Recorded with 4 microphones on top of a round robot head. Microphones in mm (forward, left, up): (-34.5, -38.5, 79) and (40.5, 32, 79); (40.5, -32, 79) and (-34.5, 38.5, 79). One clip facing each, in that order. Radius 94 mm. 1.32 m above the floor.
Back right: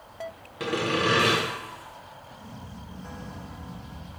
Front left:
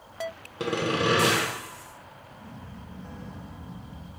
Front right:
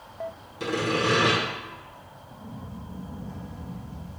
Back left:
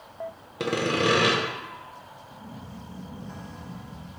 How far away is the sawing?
About 0.7 m.